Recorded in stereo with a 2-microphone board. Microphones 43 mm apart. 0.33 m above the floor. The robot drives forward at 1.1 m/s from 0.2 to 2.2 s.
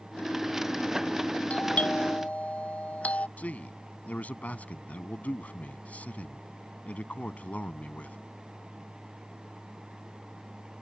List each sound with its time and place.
1.5 s a doorbell: 35° left (ahead or behind)
3.4 s a man speaking: 40° left (ahead or behind)